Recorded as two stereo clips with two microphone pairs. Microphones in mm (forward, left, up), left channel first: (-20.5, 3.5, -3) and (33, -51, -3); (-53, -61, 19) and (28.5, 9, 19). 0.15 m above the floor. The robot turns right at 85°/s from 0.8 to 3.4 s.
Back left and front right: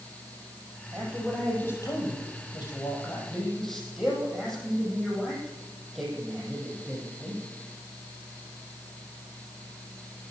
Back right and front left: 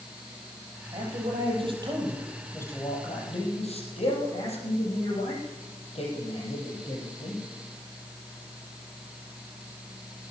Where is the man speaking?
10° left, 6 m; by 7.5 s 140° right, 6 m.